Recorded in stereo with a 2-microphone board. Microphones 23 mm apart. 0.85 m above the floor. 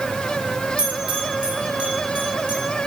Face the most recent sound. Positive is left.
turn(degrees=-60)  # may be behind; listen again after turning